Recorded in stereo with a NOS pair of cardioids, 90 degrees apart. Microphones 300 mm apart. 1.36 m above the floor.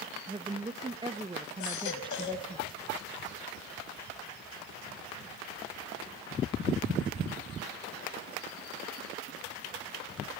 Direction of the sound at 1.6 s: 70° left.